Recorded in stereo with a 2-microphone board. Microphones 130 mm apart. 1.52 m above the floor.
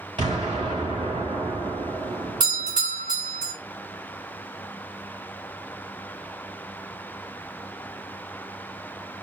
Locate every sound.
0.2 s an explosion: 45° right (ahead or behind), 3 m
2.4 s a doorbell: 35° right (ahead or behind), 3 m